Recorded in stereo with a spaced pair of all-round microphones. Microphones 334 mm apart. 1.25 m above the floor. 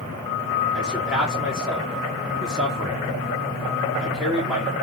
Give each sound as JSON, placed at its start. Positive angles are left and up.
{"t": 0.7, "sound": "a man speaking", "side_deg": -5, "distance_m": 2.0}